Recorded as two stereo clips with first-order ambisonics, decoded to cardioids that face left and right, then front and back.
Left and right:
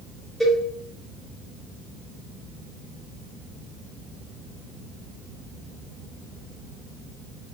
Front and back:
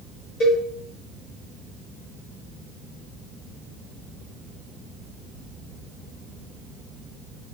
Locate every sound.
0.4 s a cowbell: 10° left, 1.5 m